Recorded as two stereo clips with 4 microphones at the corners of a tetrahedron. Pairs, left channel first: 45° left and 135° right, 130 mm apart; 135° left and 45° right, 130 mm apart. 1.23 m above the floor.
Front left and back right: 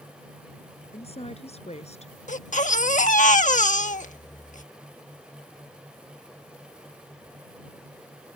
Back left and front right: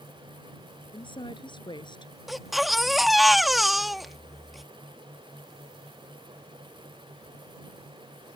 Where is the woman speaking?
85° left; by 2.1 s 80° left.